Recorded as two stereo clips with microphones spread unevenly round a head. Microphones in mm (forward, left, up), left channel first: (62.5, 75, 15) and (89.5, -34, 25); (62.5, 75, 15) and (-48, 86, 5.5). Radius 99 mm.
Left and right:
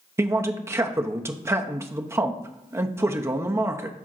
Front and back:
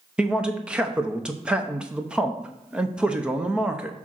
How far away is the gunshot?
I don't hear a gunshot.